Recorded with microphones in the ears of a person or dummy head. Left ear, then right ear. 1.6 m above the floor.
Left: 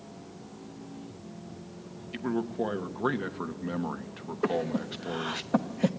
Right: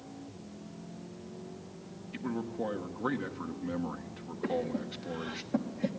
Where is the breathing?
45° left (ahead or behind), 0.9 m.